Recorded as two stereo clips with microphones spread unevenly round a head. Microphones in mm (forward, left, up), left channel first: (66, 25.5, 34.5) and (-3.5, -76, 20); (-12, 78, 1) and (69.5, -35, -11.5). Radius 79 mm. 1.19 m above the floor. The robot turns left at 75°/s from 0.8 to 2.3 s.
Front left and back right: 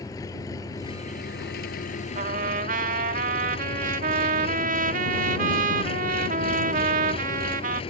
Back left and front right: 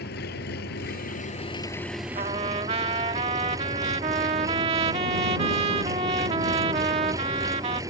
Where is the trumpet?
100° right; by 7.8 s 110° right.